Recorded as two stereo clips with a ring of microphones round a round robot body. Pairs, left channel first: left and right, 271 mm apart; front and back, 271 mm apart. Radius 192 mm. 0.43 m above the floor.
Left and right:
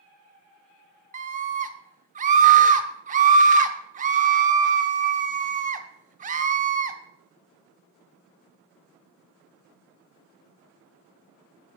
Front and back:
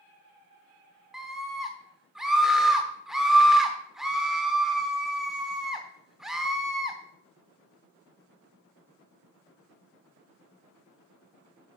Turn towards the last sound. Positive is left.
turn(degrees=-95)